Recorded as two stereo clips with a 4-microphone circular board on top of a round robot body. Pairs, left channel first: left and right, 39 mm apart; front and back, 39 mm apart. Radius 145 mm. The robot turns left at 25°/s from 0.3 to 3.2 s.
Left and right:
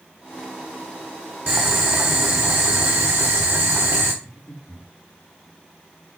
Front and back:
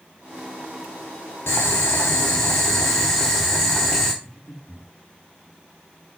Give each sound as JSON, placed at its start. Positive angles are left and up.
{"t": 1.5, "sound": "boiling", "azimuth_deg": -45, "distance_m": 1.1}
{"t": 4.2, "sound": "breathing", "azimuth_deg": 100, "distance_m": 3.0}